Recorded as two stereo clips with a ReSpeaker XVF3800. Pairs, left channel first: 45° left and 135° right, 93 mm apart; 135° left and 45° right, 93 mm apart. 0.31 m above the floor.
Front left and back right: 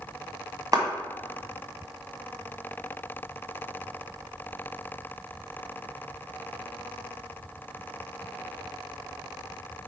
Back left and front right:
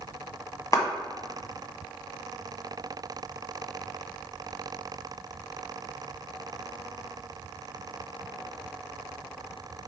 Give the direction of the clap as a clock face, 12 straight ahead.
6 o'clock.